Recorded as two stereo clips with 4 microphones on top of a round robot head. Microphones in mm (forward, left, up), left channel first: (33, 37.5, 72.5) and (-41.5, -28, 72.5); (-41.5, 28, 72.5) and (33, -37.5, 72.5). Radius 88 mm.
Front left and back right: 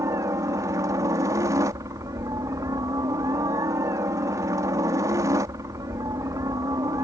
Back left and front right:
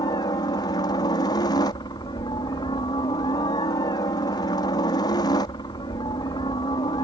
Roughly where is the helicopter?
Behind.